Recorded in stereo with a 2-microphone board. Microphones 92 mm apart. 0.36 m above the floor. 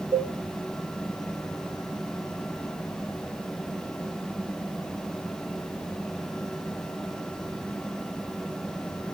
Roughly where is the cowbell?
Right.